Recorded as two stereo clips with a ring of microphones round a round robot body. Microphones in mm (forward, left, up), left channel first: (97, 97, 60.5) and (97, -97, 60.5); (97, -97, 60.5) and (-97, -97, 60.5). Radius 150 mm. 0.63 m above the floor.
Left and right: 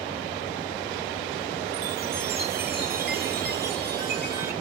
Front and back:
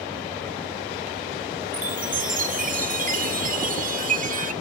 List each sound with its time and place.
1.7 s a chime: 135° right, 1.3 m